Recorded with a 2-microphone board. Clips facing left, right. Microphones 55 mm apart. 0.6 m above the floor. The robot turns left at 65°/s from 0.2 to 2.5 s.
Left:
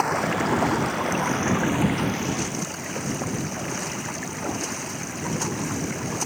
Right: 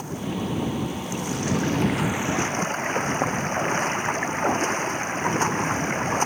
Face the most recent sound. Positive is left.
turn(degrees=-35)